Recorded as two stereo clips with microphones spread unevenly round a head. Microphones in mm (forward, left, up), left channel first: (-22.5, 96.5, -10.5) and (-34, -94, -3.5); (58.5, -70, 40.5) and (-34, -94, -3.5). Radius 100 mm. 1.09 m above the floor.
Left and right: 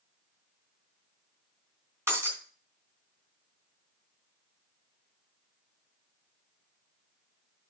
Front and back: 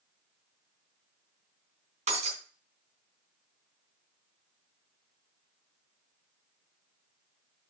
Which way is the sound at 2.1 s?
170° right.